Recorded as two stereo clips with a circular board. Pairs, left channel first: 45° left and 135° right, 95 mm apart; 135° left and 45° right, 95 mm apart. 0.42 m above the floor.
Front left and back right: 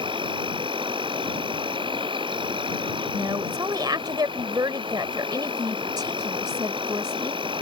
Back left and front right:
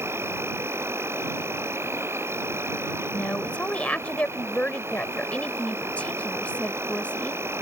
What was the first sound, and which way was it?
An insect, 110° right.